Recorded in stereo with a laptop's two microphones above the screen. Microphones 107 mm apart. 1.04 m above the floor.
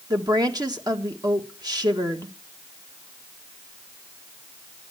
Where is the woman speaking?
40° right (ahead or behind), 1.4 m.